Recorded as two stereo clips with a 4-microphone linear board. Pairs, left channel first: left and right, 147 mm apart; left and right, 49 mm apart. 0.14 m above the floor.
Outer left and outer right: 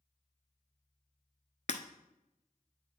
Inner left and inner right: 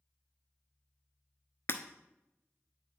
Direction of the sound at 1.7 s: 55° left (ahead or behind).